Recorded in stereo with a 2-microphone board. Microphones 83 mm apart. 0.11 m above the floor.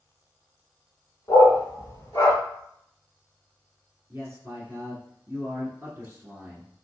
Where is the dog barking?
35° left (ahead or behind), 1.8 m; by 2.4 s 40° left (ahead or behind), 0.8 m.